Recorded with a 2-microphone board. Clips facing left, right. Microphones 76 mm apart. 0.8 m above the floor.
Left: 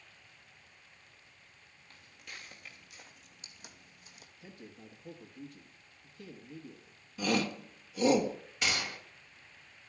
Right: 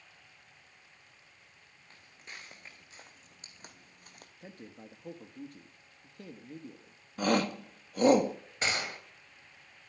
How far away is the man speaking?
About 1.1 m.